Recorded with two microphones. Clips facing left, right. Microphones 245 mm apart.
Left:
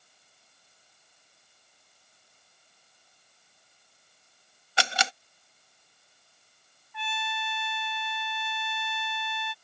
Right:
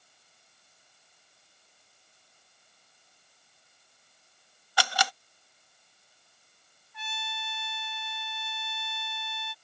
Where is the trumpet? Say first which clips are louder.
Left 6 dB; 65° left (ahead or behind).